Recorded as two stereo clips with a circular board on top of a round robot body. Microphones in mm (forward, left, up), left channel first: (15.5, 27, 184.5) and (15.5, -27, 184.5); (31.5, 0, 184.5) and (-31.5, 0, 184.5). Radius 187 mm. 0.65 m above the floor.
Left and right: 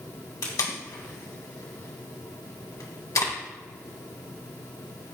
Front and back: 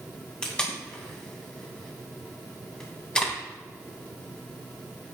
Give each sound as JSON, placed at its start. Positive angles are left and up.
{"t": 0.4, "sound": "tape being pulled", "azimuth_deg": 75, "distance_m": 2.5}